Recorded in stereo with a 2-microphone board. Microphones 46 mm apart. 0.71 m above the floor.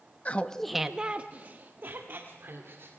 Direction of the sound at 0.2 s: 30° left (ahead or behind).